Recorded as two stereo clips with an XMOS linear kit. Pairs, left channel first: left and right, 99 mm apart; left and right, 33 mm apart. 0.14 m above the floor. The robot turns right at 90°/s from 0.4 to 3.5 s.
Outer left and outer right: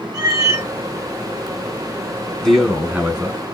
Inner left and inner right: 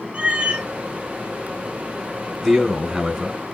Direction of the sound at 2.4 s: 5° left (ahead or behind).